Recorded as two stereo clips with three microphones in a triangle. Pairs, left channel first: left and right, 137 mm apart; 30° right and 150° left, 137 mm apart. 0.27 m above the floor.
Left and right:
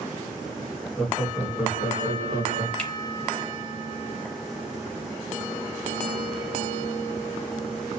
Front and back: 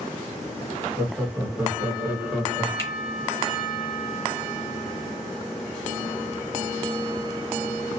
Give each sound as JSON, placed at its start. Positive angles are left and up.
{"t": 1.0, "sound": "laughter", "azimuth_deg": 170, "distance_m": 1.2}
{"t": 2.8, "sound": "a finger snap", "azimuth_deg": 20, "distance_m": 0.8}